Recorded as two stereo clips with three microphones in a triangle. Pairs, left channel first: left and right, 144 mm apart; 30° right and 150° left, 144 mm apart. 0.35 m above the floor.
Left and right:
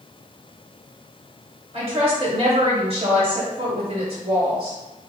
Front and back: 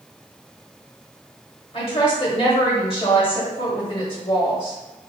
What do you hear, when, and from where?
1.7 s a woman speaking: 65° right, 1.4 m